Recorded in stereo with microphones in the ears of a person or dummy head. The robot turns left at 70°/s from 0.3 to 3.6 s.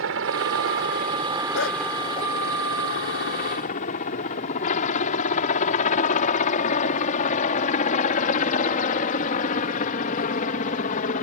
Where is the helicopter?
80° right; by 11.2 s 45° left (ahead or behind).